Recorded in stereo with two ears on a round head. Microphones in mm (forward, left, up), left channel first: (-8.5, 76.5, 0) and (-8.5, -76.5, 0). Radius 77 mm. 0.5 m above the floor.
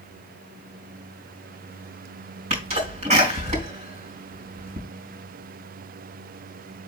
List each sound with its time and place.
2.5 s a sneeze: 45° right (ahead or behind), 3.5 m